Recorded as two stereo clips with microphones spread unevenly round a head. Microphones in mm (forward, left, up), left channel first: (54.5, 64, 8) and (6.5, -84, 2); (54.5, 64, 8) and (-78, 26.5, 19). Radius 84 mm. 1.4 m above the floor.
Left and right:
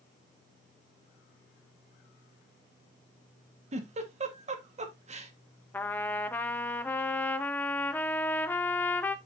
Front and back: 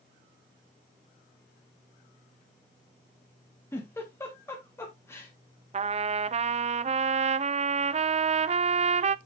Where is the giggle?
60° right, 1.4 m.